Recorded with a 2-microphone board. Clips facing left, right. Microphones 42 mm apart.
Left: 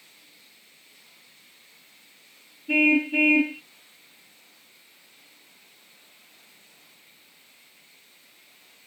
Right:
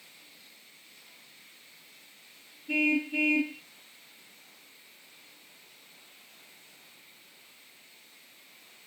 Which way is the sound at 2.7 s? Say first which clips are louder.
Left 7 dB; 30° left (ahead or behind).